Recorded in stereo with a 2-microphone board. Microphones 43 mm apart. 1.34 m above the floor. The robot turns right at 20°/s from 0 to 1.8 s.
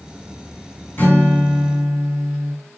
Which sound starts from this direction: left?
A guitar, at 1.0 s.